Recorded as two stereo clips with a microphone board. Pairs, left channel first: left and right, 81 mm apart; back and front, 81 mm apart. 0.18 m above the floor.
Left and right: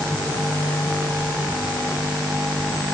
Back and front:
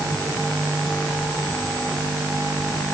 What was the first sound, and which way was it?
Only background noise.